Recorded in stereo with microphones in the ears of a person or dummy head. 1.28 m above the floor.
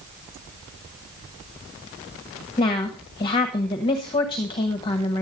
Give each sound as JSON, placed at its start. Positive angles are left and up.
{"t": 2.6, "sound": "a woman speaking", "side_deg": 25, "distance_m": 1.4}